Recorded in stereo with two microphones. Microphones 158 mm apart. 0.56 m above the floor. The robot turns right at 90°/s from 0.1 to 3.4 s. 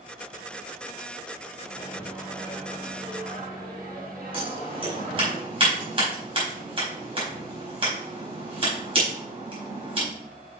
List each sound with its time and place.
1.6 s a microwave: 125° left, 4 m; by 5.3 s 70° right, 4 m
4.3 s scissors: 35° right (ahead or behind), 4.5 m